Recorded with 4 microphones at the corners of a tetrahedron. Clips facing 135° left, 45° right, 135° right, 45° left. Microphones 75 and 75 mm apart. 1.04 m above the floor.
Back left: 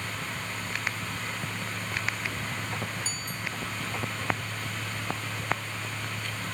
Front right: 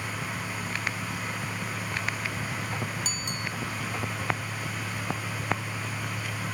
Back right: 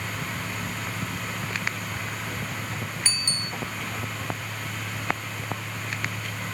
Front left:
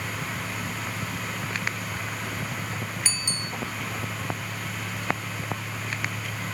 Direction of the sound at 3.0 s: 35° right.